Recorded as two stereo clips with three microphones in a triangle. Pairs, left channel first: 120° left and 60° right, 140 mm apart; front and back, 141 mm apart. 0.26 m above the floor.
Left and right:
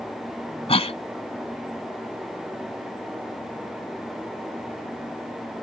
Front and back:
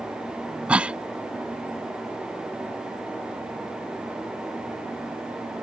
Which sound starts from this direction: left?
A cough, at 0.7 s.